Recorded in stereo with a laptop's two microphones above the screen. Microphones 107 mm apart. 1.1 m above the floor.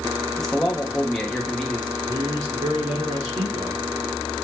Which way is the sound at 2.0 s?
75° right (ahead or behind).